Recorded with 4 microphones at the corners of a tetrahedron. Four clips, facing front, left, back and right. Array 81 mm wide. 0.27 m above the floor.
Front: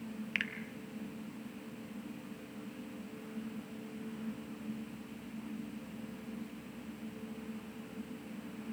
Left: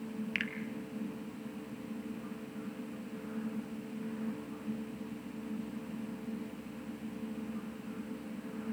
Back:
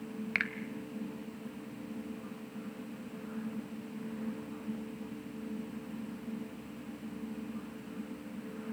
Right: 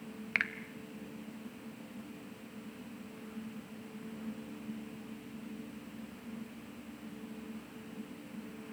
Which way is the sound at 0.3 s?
130° right.